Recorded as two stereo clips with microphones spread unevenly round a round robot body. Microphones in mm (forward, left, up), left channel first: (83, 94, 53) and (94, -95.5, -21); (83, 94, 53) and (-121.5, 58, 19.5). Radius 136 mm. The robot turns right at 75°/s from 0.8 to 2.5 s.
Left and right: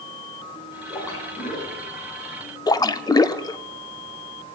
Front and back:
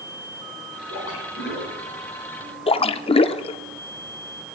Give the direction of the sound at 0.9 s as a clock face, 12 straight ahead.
12 o'clock.